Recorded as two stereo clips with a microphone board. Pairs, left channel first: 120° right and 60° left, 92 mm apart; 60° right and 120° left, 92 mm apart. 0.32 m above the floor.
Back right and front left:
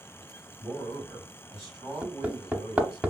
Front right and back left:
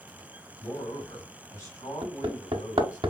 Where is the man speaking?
25° right, 2.5 m.